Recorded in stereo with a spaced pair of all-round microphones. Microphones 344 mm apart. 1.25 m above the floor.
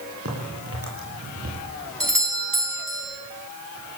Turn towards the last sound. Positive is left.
turn(degrees=-65)  # may be behind; listen again after turning